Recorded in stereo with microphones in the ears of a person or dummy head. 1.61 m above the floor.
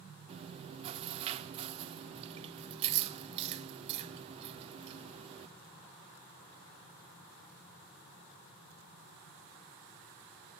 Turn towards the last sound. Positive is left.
turn(degrees=-30)  # may be behind; listen again after turning